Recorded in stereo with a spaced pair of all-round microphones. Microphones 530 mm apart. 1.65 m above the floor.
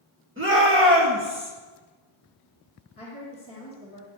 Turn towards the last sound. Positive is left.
turn(degrees=10)  # may be behind; listen again after turning